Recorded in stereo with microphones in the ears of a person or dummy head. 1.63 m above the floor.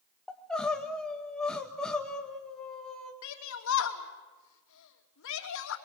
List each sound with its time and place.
0.3 s crying: 5° left (ahead or behind), 1.9 m
3.2 s a shout: 75° left (ahead or behind), 2.5 m